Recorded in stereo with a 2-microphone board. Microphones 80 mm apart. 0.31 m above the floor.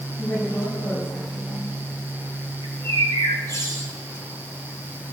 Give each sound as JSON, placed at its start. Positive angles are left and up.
{"t": 0.2, "sound": "a woman speaking", "side_deg": 40, "distance_m": 9.0}
{"t": 2.6, "sound": "a bird", "side_deg": 40, "distance_m": 3.5}